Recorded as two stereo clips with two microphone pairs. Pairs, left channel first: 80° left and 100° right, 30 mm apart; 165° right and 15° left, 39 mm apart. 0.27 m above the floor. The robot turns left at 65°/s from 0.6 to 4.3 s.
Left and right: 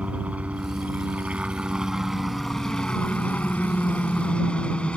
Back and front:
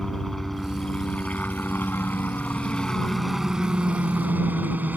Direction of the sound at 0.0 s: 80° right.